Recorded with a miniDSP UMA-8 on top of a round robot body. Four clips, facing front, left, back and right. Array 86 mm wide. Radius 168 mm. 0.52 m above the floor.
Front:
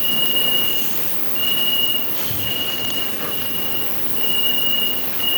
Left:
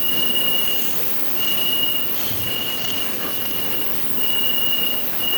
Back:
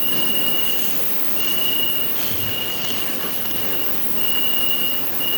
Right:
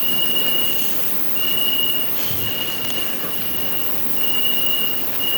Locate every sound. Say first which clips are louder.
0.0 s an insect: even, front 1 dB; 20° right, 3.5 m